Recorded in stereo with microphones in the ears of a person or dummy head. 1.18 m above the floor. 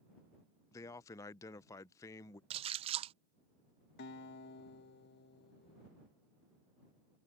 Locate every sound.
0.7 s a man speaking: 15° left (ahead or behind)
2.5 s a splash: 30° right (ahead or behind)
4.0 s a guitar: 55° left (ahead or behind)